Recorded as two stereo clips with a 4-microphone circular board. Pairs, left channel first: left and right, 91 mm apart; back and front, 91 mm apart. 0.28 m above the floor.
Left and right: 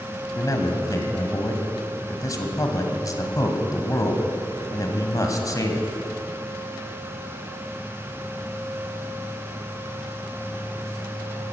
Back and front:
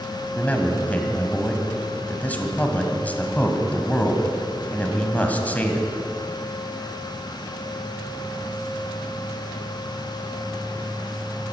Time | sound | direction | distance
0.3 | a man speaking | 115° left | 1.8 m